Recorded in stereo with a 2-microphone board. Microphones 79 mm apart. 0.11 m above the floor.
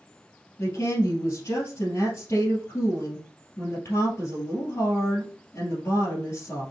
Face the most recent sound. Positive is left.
turn(degrees=40)  # may be behind; listen again after turning